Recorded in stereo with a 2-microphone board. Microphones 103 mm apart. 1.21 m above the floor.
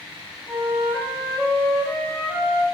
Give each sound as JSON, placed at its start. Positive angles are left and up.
{"t": 0.5, "sound": "a flute", "side_deg": -10, "distance_m": 0.7}